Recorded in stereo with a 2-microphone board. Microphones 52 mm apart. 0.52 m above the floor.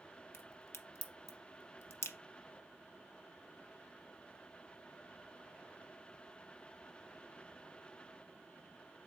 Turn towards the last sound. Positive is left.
turn(degrees=60)  # may be behind; listen again after turning